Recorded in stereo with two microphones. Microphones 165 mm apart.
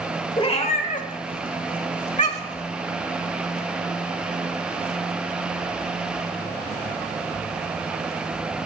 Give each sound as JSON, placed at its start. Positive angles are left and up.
{"t": 0.4, "sound": "a cat meowing", "side_deg": 35, "distance_m": 1.1}